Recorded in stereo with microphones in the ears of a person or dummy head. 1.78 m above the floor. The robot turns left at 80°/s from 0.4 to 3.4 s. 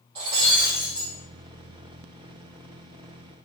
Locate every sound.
0.1 s breaking glass: 150° right, 2.5 m; by 1.1 s 155° left, 2.5 m